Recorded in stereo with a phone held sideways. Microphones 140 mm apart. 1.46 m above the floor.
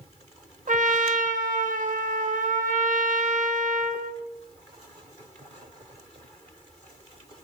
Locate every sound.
0.7 s a trumpet: 70° right (ahead or behind), 0.5 m